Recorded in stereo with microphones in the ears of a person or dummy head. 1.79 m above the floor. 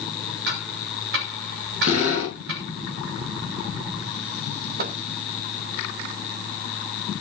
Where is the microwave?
55° right (ahead or behind), 1.1 m.